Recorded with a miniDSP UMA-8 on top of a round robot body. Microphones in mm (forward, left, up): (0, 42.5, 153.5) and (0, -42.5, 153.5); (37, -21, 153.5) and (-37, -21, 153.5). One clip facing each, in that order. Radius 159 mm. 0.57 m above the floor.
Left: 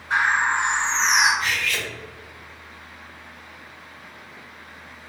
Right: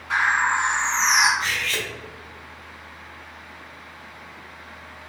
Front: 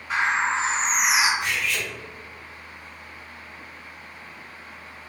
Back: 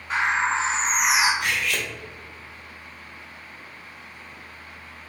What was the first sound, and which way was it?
A bird, 85° right.